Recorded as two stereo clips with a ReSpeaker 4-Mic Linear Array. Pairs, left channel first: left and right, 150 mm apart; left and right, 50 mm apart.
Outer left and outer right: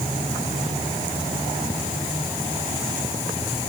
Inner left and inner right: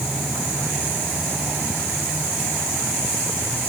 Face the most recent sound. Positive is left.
No sound to turn to.